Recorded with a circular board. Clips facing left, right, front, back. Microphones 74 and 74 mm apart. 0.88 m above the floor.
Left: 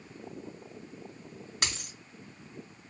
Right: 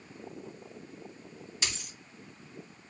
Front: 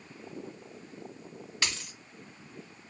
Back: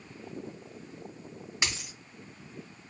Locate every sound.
1.6 s a dropped coin: 110° left, 1.2 m